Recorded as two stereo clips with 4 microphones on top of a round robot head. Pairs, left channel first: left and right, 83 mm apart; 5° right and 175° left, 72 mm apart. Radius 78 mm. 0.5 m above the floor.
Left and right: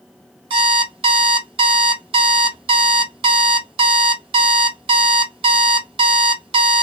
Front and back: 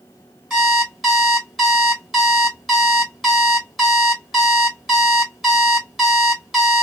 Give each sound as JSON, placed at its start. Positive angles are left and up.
{"t": 0.5, "sound": "an alarm clock", "azimuth_deg": -95, "distance_m": 0.8}